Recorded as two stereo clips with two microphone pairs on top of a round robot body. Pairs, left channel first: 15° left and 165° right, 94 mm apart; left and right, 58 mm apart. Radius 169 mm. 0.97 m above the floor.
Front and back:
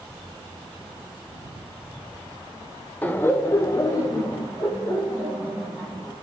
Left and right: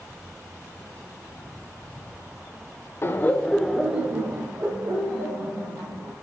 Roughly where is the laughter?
Left.